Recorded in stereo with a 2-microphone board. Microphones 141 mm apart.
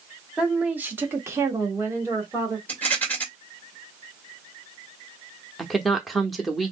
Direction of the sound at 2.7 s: 10° left (ahead or behind).